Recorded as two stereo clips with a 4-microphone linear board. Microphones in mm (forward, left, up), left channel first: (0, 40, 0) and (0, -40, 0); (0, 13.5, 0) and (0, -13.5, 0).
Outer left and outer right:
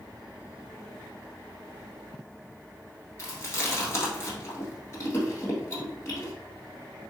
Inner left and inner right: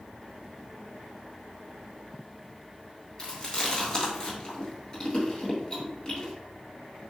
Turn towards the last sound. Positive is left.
turn(degrees=30)  # may be behind; listen again after turning